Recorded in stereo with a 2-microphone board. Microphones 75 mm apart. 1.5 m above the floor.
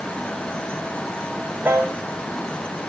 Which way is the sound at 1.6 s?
25° right (ahead or behind).